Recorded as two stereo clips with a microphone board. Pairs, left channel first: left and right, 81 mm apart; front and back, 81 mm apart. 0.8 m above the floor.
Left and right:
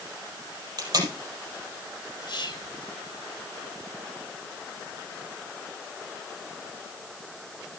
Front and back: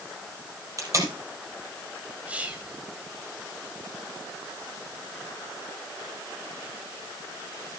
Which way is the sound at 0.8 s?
130° right.